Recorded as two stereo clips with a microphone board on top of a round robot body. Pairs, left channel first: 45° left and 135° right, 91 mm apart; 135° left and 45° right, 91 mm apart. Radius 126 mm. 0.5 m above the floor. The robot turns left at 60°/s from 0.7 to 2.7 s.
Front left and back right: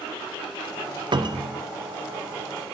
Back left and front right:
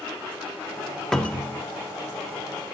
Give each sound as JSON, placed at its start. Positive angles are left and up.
{"t": 1.1, "sound": "a cupboard door", "azimuth_deg": -140, "distance_m": 1.0}